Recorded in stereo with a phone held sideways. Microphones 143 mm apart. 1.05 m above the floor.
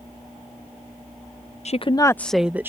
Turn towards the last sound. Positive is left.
turn(degrees=-15)  # may be behind; listen again after turning